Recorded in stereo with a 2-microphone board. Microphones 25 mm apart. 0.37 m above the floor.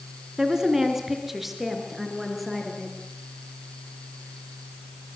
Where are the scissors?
I don't hear scissors.